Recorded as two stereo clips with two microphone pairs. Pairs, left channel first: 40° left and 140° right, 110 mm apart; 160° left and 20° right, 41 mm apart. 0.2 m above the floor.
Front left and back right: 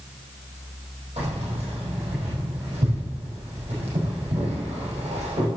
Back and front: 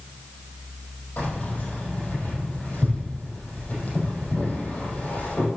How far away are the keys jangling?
About 5 m.